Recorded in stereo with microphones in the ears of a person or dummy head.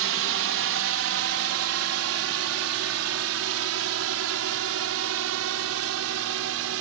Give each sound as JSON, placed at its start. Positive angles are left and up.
{"t": 0.0, "sound": "a drone", "side_deg": -60}